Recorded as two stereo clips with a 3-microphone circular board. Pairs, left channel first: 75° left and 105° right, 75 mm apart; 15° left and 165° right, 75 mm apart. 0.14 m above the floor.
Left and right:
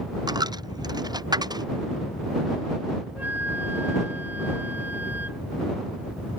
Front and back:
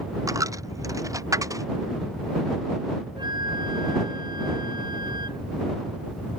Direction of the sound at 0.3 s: 125° right.